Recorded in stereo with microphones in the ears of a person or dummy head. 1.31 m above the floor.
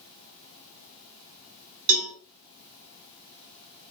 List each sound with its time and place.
1.9 s a cowbell: 75° right (ahead or behind), 1.5 m